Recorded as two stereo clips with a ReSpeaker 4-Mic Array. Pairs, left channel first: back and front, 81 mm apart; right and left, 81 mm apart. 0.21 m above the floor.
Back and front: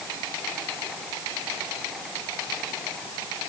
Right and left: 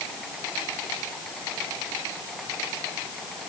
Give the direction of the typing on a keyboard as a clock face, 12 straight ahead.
No typing on a keyboard in this recording.